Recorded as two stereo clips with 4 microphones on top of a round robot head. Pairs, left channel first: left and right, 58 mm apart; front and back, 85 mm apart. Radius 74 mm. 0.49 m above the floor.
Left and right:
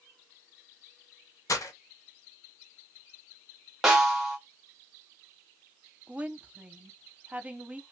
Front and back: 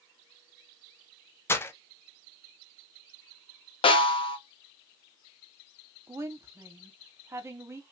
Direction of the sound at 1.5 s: 65° left.